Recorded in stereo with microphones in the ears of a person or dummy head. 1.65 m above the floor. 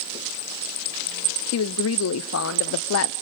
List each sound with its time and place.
1.5 s a woman speaking: 75° left (ahead or behind), 0.6 m